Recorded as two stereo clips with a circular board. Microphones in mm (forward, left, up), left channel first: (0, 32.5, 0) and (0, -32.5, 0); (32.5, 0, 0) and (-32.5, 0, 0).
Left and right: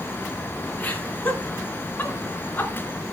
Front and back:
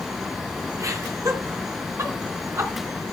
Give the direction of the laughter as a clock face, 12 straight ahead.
7 o'clock.